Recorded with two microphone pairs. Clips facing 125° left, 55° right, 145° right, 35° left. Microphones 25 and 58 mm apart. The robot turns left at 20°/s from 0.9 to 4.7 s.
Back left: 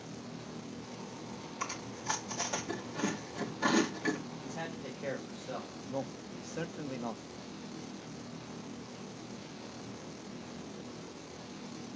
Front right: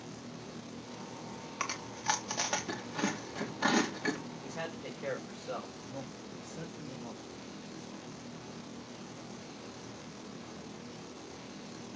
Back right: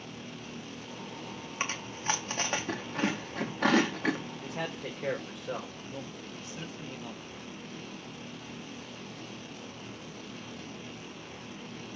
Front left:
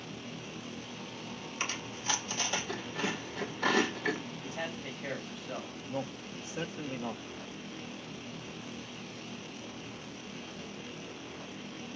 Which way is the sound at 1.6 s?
85° right.